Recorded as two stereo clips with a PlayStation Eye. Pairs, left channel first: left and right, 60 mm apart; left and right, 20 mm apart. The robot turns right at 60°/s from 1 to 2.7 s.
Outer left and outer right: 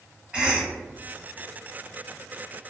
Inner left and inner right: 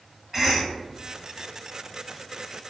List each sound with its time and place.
0.3 s a cough: 20° right (ahead or behind), 1.3 m